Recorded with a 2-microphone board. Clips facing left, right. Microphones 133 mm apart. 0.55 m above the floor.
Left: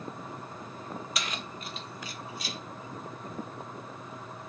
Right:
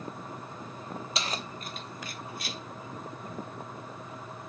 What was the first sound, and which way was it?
Keys jangling, 25° right (ahead or behind).